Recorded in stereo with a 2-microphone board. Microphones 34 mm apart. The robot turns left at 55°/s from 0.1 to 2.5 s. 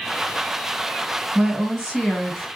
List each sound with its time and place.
1.4 s a woman speaking: 125° right, 1.4 m; by 2.5 s 175° left, 1.4 m